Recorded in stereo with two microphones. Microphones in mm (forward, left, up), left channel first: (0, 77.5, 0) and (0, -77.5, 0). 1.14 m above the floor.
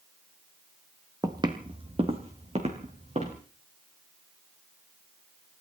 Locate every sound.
1.2 s footsteps: 25° right (ahead or behind), 1.6 m; by 3.4 s 45° right (ahead or behind), 4.5 m